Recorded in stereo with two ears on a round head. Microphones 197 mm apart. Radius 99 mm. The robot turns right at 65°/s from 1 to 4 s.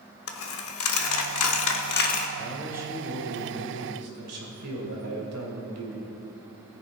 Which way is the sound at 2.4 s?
170° left.